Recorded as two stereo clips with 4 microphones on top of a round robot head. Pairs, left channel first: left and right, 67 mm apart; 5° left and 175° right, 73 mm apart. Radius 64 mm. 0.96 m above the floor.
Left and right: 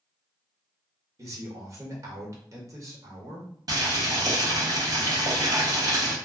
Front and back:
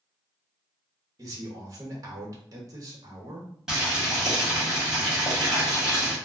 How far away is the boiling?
About 1.3 m.